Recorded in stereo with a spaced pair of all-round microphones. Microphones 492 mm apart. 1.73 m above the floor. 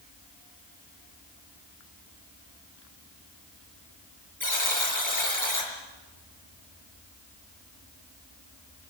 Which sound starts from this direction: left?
A buzzer, at 4.4 s.